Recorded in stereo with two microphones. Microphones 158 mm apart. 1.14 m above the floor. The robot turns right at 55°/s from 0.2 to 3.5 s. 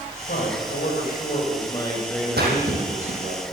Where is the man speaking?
70° left, 7.5 m; by 3.4 s 120° right, 7.5 m.